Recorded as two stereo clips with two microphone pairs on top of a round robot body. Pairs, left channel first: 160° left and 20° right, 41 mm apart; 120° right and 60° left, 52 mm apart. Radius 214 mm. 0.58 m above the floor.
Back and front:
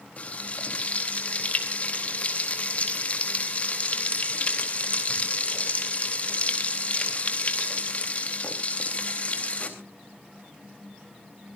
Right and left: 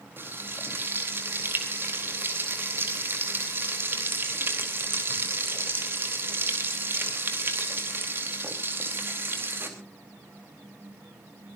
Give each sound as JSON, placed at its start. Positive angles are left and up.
{"t": 0.2, "sound": "frying", "azimuth_deg": 100, "distance_m": 4.0}